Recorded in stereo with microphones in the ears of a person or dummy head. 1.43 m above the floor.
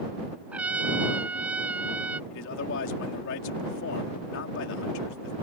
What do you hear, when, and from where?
0.5 s a trumpet: 10° right (ahead or behind)
2.3 s a man speaking: 65° left (ahead or behind)